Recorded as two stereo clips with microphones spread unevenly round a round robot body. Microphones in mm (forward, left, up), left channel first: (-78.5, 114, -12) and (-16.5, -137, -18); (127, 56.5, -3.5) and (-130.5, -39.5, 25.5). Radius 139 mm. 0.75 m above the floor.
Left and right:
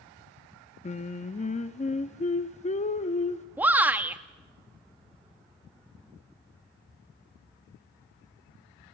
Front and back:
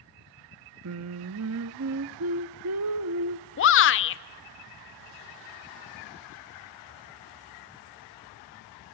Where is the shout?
5° left, 0.8 m.